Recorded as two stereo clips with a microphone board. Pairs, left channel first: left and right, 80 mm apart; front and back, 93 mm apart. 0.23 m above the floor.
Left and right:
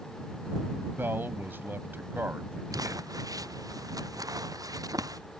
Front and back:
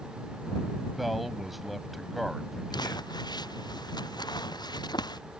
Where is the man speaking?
95° right.